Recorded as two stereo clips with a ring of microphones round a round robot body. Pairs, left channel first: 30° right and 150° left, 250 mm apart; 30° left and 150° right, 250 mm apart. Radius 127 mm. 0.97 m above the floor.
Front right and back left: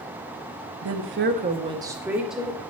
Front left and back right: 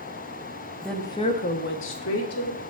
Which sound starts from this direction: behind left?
A woman speaking, at 0.8 s.